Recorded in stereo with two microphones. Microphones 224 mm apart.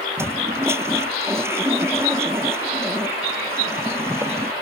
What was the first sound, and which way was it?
A toilet flushing, 10° right (ahead or behind).